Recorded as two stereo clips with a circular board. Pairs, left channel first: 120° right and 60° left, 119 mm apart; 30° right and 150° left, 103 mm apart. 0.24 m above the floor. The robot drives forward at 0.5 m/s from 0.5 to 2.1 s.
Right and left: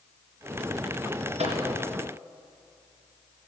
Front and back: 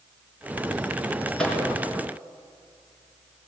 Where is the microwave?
50° left, 3 m; by 1.6 s 55° left, 3 m.